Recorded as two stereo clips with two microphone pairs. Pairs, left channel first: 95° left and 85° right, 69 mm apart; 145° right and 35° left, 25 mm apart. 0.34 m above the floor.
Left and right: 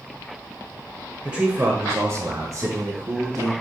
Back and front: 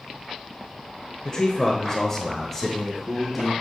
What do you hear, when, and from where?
1.2 s a man speaking: 155° right, 1.1 m; by 3.5 s 60° right, 3 m